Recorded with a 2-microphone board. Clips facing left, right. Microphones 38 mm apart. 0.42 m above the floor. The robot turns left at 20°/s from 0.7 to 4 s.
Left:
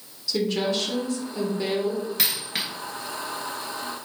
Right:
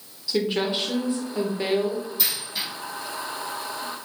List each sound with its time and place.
0.3 s a woman speaking: 20° right (ahead or behind), 0.8 m; by 2.1 s 25° right (ahead or behind), 0.8 m
2.2 s a dropped coin: 70° left (ahead or behind), 1.2 m; by 2.6 s 60° left (ahead or behind), 1.2 m